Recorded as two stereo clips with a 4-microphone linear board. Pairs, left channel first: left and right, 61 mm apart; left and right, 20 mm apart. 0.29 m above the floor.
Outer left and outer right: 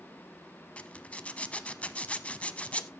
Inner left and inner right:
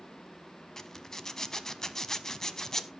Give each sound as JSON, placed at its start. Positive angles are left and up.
{"t": 0.8, "sound": "a zipper", "side_deg": 20, "distance_m": 0.7}